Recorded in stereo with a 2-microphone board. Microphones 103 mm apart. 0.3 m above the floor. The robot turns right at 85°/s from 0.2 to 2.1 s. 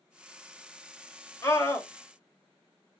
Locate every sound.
1.4 s a scream: 25° left (ahead or behind), 1.3 m